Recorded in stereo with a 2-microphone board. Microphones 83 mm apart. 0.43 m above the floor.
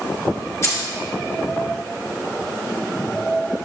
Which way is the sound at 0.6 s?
40° left (ahead or behind).